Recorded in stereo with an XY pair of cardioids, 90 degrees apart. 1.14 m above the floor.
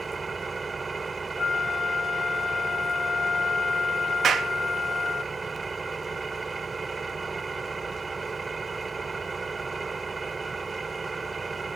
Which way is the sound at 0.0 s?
35° right.